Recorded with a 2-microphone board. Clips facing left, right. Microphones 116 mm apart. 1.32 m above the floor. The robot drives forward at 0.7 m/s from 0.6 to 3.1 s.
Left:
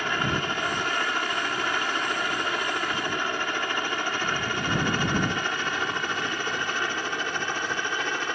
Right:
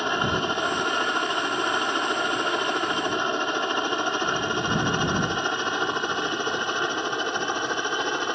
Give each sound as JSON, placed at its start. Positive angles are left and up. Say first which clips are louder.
{"t": 0.0, "sound": "a helicopter", "louder": "right 3 dB", "side_deg": -20}